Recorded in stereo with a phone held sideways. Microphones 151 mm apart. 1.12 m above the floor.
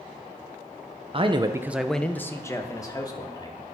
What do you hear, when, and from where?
1.1 s a man speaking: 35° right (ahead or behind), 0.8 m; by 3.6 s 25° left (ahead or behind), 2.5 m